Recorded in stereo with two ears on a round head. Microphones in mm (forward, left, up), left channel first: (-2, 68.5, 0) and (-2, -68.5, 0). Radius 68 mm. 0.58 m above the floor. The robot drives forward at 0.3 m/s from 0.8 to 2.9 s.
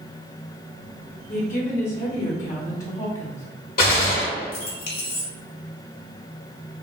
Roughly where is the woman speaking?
Left.